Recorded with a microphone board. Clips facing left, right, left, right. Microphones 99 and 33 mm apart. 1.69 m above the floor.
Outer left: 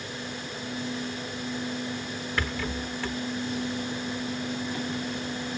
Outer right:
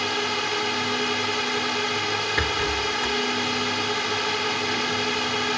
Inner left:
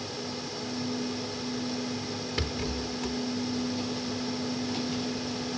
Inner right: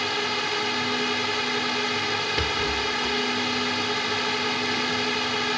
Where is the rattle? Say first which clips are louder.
Outer right 3 dB, inner right 8 dB; 15° right (ahead or behind).